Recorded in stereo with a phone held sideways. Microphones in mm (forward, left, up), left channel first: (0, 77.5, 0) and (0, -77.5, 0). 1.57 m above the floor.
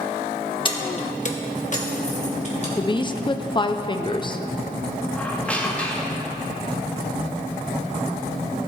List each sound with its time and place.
0.7 s keys jangling: 30° left (ahead or behind), 1.0 m; by 2.7 s 45° left (ahead or behind), 2.5 m
2.8 s a woman speaking: 30° left (ahead or behind), 0.6 m
5.2 s a squeak: 10° left (ahead or behind), 1.3 m